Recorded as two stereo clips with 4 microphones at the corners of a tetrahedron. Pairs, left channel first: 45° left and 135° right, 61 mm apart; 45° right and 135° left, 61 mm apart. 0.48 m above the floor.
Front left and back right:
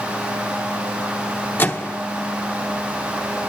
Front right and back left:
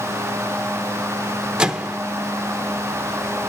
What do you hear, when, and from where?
1.6 s a microwave: 70° left, 0.8 m